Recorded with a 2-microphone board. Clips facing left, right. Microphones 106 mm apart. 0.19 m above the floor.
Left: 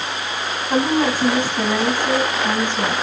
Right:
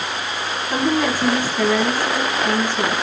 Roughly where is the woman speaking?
Centre.